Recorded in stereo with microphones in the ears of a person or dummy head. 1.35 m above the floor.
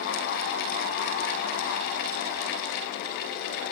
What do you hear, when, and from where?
Only background noise.